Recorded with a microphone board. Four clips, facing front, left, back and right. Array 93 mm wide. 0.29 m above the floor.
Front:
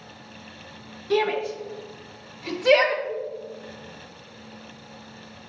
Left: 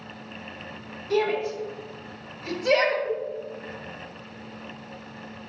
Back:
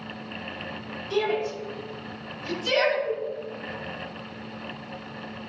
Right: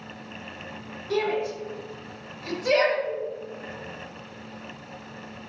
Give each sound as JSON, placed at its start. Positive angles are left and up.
{"t": 1.1, "sound": "a shout", "azimuth_deg": 0, "distance_m": 5.0}
{"t": 3.0, "sound": "a cowbell", "azimuth_deg": 40, "distance_m": 1.6}